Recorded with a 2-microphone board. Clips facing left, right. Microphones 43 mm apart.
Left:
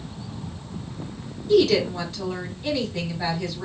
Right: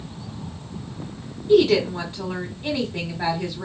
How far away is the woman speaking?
About 1.3 m.